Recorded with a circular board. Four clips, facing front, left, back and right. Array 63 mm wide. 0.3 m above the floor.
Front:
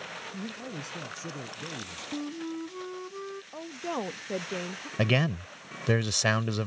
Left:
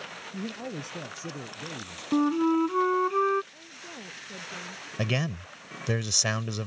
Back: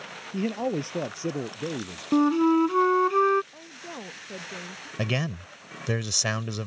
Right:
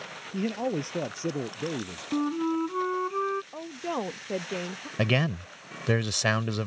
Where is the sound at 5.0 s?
55° right.